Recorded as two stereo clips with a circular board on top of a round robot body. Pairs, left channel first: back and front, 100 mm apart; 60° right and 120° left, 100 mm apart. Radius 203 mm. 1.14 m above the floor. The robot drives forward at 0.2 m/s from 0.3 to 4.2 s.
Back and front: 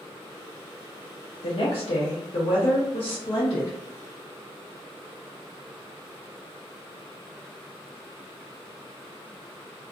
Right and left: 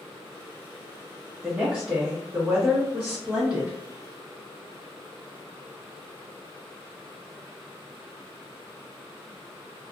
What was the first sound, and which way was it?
A woman speaking, 160° right.